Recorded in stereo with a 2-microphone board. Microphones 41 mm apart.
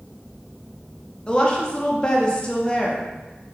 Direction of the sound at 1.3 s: 20° left (ahead or behind).